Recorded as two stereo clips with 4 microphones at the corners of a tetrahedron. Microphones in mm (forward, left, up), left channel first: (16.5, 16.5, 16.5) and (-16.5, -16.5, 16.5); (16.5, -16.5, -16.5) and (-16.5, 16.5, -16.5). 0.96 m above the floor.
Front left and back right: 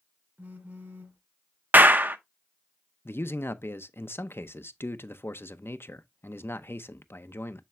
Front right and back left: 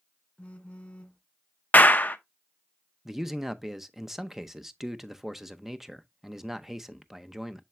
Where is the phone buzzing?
100° right, 1.4 m.